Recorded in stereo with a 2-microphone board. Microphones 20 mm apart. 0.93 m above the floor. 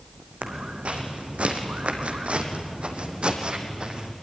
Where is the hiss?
No hiss in this recording.